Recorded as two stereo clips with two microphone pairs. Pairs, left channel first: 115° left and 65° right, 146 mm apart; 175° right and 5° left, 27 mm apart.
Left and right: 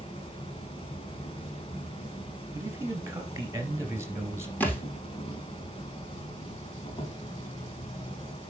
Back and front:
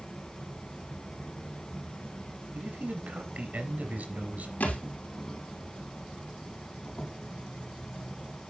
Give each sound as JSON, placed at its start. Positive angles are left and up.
{"t": 0.0, "sound": "an insect", "azimuth_deg": 140, "distance_m": 2.0}
{"t": 2.5, "sound": "a man speaking", "azimuth_deg": 5, "distance_m": 3.0}
{"t": 4.6, "sound": "a thud", "azimuth_deg": -170, "distance_m": 3.0}